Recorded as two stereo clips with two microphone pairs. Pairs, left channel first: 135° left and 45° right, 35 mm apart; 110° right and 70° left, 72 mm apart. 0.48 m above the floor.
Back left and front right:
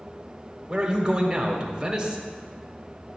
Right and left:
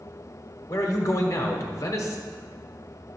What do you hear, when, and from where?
0.7 s a man speaking: 105° right, 1.2 m